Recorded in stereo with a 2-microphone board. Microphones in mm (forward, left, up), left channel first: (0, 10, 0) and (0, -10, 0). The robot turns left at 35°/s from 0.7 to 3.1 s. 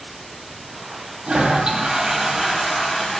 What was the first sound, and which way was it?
A toilet flushing, 130° right.